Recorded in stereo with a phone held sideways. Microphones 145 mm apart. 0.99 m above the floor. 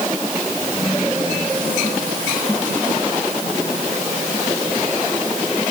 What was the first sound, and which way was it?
Only background noise.